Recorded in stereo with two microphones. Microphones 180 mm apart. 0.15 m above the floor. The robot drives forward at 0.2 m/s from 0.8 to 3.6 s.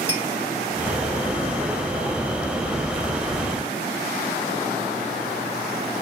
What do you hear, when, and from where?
0.1 s a clink: 35° right (ahead or behind), 1.0 m